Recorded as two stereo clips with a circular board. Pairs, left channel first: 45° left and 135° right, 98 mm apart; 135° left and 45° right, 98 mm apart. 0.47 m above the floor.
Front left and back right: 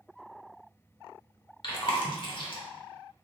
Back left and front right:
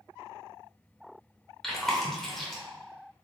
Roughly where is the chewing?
Ahead left.